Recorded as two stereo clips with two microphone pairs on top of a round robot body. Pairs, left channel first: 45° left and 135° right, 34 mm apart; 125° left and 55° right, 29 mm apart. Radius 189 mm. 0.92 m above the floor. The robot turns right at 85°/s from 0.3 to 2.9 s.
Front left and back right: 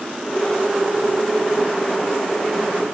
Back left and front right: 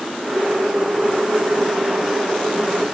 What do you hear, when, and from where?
Only background noise.